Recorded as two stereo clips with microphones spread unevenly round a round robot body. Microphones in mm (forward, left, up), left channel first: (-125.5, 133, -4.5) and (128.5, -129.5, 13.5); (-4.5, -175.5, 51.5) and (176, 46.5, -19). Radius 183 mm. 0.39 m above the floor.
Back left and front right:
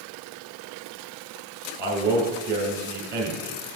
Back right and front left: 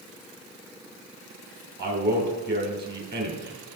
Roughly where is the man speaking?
Ahead.